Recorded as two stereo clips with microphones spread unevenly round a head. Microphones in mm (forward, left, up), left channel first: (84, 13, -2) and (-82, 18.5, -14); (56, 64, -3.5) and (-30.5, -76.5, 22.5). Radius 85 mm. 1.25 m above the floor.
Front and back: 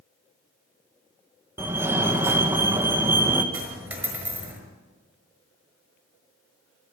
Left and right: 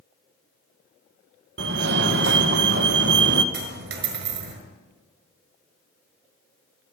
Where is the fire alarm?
105° right, 2.0 m.